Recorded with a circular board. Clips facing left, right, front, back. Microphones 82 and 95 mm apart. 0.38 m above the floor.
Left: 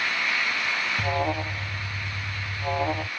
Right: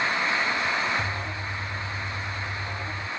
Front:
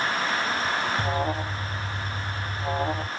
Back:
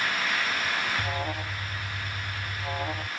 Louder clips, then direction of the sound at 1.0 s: Left 5 dB, front 5 dB; 65° left.